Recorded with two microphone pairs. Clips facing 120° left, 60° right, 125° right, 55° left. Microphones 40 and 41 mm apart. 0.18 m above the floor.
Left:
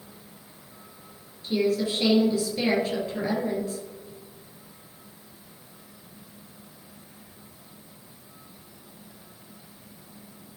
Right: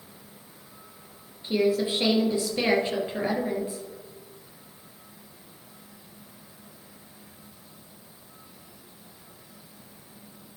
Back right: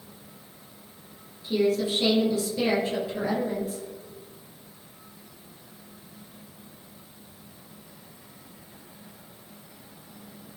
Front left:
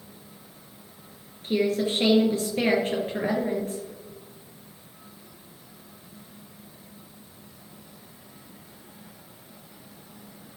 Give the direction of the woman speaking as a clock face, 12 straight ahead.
12 o'clock.